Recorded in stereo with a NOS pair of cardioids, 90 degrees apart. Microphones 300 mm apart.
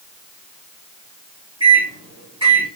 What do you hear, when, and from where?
1.6 s a microwave: 15° right, 2 m